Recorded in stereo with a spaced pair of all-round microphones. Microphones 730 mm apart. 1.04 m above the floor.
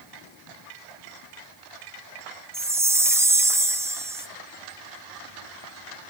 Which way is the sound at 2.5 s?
5° right (ahead or behind).